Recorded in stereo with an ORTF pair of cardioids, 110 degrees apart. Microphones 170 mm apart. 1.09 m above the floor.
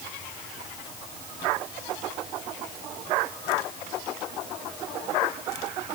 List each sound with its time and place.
Only background noise.